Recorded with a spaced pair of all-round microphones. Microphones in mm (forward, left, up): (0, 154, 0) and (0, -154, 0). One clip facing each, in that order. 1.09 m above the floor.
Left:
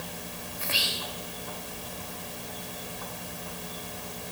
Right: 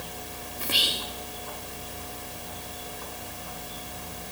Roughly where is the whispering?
Right.